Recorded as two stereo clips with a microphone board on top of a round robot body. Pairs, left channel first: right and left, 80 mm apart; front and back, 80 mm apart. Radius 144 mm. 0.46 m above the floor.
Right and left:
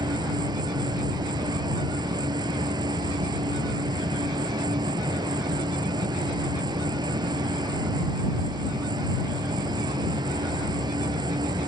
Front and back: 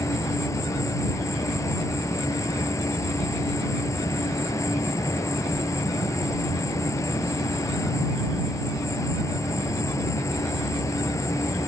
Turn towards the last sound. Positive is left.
turn(degrees=55)